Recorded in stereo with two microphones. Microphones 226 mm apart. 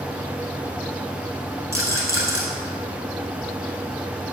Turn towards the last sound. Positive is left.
turn(degrees=-15)  # may be behind; listen again after turning